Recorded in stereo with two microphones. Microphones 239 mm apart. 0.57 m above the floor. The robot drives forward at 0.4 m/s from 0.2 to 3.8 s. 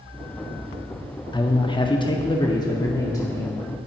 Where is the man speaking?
20° left (ahead or behind), 0.6 m; by 3.5 s 15° left (ahead or behind), 0.9 m.